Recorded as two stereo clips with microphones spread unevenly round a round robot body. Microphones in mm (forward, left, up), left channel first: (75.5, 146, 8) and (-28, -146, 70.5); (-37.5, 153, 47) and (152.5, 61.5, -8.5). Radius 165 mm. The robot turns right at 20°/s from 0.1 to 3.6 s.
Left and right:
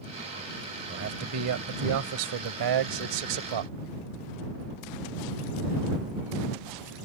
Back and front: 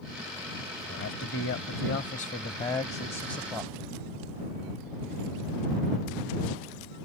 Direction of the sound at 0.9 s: 160° right.